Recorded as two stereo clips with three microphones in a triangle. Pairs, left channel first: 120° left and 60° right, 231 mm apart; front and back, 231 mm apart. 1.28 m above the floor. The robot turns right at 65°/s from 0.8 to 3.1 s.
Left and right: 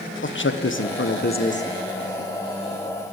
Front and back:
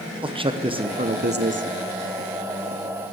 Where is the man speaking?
120° left, 0.9 m; by 1.7 s 175° left, 0.9 m.